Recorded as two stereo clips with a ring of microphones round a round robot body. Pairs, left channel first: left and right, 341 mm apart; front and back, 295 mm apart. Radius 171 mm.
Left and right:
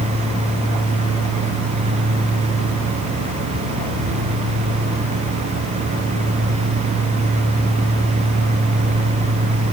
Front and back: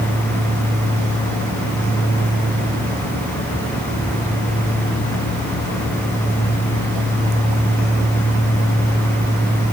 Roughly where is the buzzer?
I don't hear a buzzer.